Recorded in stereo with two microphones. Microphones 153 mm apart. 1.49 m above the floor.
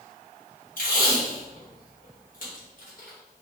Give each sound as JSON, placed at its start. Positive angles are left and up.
{"t": 0.8, "sound": "tape being pulled", "side_deg": 60, "distance_m": 1.2}